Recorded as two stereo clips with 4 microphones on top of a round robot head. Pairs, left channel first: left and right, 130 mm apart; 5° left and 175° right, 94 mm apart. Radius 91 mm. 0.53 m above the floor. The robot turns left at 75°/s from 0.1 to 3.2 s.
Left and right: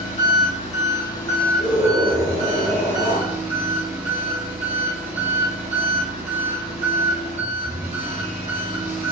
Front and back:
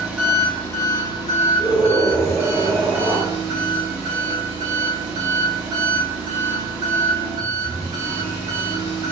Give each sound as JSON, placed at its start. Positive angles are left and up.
{"t": 0.0, "sound": "an engine running", "azimuth_deg": 110, "distance_m": 1.9}
{"t": 1.6, "sound": "a scream", "azimuth_deg": -105, "distance_m": 2.5}